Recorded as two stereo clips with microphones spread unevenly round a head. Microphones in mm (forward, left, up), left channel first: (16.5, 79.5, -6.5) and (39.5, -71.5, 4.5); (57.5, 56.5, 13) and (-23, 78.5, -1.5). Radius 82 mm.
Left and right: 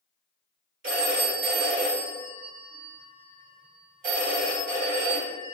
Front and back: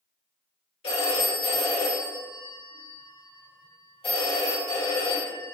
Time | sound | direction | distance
0.8 | a phone ringing | 50° right | 2.0 m